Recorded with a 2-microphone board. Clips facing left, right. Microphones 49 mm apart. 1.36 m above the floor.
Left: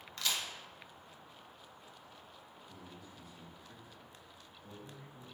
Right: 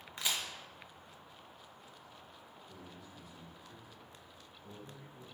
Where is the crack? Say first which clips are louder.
Even; 20° right (ahead or behind), 0.6 m.